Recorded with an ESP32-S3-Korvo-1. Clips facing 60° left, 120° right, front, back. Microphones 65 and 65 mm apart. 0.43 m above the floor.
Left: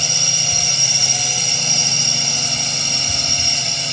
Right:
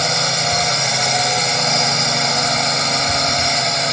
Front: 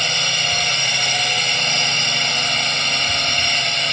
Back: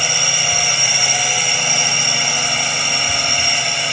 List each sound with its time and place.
0.0 s a drone: 100° right